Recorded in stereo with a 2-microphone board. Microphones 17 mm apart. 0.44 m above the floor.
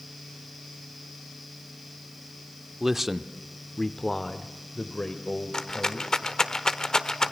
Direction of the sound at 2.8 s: 20° right (ahead or behind).